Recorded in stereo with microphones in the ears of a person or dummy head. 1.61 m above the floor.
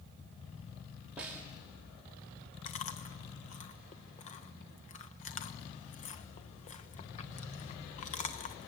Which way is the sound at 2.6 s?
35° left (ahead or behind).